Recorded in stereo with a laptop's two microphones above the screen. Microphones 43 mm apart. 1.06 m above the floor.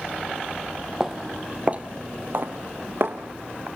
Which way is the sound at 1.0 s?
10° right (ahead or behind).